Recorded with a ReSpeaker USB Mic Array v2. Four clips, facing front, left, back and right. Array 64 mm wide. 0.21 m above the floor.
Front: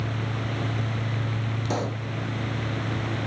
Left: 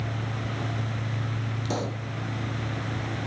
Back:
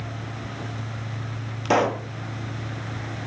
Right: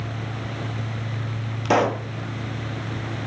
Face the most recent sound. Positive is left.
turn(degrees=-130)